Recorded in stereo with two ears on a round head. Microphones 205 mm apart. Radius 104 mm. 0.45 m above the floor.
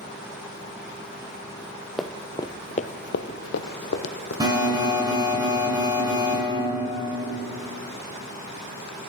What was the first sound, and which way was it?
Running footsteps, centre (ahead or behind).